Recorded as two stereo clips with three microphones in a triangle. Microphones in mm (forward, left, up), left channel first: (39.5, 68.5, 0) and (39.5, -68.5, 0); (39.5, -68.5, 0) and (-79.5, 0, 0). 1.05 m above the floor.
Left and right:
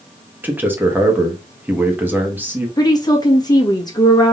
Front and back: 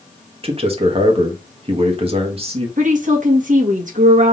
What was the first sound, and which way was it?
A man speaking, 165° right.